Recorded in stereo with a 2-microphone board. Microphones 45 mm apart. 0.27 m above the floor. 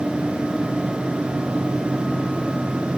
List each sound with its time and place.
Only background noise.